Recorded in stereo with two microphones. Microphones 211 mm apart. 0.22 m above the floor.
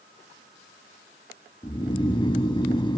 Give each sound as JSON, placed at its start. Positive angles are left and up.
{"t": 1.6, "sound": "snoring", "side_deg": 20, "distance_m": 0.5}